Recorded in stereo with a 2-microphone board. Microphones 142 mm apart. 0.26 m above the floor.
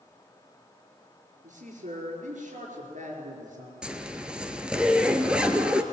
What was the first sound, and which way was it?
A man speaking, 60° right (ahead or behind).